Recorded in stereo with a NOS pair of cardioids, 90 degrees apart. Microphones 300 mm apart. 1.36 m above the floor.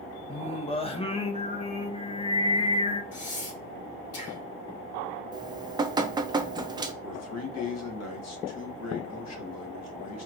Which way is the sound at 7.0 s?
60° left.